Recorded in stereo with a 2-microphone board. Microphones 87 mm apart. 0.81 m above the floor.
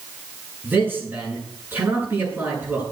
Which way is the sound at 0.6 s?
20° right (ahead or behind).